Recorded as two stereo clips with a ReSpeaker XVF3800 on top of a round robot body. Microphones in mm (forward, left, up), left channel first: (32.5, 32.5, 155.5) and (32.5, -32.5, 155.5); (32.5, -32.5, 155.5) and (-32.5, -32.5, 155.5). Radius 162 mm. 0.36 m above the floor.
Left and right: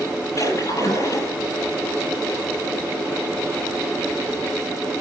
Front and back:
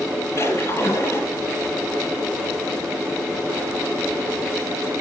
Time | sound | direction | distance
0.4 | a splash | 50° left | 9.5 m